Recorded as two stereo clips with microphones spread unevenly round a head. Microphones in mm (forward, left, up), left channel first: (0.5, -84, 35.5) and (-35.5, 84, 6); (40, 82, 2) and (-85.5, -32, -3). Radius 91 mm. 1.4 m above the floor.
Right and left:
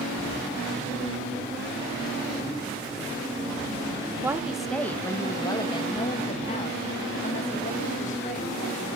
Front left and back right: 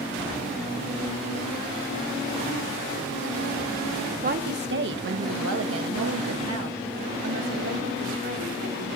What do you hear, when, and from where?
4.2 s a woman speaking: straight behind, 1.0 m; by 9.0 s 125° right, 3.5 m